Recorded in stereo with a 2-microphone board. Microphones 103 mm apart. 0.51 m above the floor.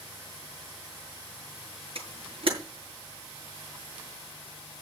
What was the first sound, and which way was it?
A camera shutter, 65° right (ahead or behind).